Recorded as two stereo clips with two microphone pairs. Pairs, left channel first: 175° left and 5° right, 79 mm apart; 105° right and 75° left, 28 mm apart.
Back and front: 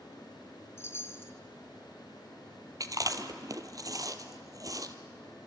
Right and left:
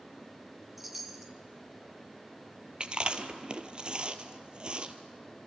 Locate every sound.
0.8 s a chime: 155° left, 1.3 m
2.8 s chewing: 25° left, 1.3 m